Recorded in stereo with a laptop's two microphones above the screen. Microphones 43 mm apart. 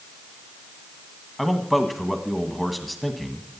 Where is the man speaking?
5° left (ahead or behind), 1.3 m.